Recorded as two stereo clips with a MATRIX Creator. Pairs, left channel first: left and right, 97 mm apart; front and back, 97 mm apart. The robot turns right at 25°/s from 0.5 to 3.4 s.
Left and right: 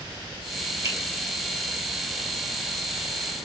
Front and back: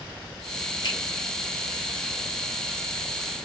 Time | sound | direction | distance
0.8 | a finger snap | 40° right | 2.0 m